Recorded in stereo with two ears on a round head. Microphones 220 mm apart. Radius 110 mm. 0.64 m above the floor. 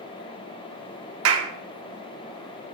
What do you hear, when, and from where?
1.2 s a clap: 60° right (ahead or behind), 0.8 m